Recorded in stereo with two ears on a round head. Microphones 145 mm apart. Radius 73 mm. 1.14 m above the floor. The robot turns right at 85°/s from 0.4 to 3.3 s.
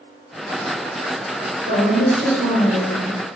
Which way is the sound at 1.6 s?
125° right.